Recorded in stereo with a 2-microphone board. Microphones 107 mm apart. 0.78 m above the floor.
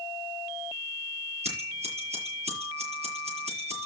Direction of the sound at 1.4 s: 80° right.